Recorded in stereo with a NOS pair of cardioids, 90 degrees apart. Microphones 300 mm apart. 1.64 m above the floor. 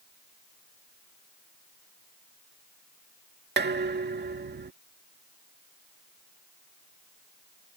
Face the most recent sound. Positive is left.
turn(degrees=-35)